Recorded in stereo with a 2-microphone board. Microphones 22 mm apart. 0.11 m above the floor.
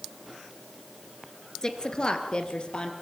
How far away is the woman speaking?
About 1.7 m.